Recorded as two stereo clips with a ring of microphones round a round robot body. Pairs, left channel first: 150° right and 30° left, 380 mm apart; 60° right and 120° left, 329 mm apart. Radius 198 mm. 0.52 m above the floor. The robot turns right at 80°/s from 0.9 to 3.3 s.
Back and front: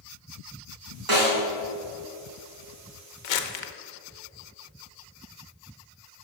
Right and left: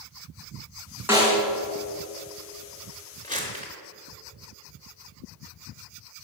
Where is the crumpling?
140° right, 0.9 m.